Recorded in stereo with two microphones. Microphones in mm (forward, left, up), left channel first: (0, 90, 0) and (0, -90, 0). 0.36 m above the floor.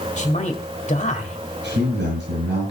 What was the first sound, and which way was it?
A man speaking, 40° left (ahead or behind).